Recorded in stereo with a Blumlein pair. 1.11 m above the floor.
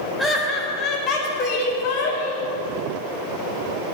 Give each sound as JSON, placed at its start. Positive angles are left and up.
{"t": 0.2, "sound": "laughter", "azimuth_deg": 5, "distance_m": 1.4}